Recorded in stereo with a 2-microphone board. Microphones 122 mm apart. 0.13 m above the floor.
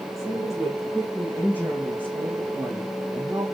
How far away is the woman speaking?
About 6.5 m.